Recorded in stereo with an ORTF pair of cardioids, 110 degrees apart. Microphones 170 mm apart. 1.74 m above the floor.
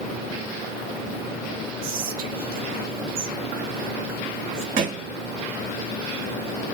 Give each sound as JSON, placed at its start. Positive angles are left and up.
{"t": 1.8, "sound": "whispering", "azimuth_deg": -60, "distance_m": 2.0}
{"t": 4.8, "sound": "a thud", "azimuth_deg": -60, "distance_m": 4.0}